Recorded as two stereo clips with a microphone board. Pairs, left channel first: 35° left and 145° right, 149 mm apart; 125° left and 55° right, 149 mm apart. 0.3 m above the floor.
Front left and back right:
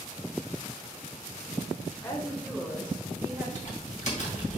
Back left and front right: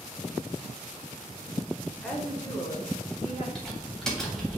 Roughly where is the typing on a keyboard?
Ahead left.